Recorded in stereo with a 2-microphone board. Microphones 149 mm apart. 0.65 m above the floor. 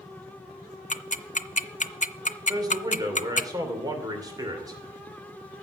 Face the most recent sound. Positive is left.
turn(degrees=-25)  # may be behind; listen again after turning